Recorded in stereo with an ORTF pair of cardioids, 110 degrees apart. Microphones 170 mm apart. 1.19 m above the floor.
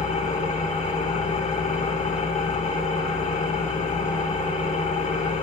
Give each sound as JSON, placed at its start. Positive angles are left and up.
{"t": 0.0, "sound": "an engine running", "azimuth_deg": 45, "distance_m": 3.0}